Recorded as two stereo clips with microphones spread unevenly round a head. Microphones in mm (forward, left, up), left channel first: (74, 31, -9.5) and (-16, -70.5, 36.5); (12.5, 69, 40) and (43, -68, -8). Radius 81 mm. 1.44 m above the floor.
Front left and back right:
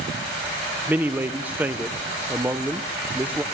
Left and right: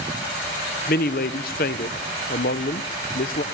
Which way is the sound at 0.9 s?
145° left.